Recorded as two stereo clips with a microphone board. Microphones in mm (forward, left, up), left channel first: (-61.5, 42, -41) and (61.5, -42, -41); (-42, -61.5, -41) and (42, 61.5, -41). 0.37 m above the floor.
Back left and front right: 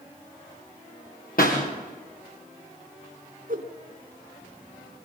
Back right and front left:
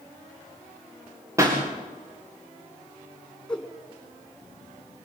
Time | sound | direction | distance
1.4 | a pop | 125° left | 6.5 m
3.5 | a whoosh | 40° right | 2 m